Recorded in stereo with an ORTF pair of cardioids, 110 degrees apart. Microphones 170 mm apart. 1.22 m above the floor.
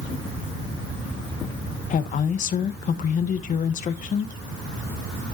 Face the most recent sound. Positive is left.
turn(degrees=50)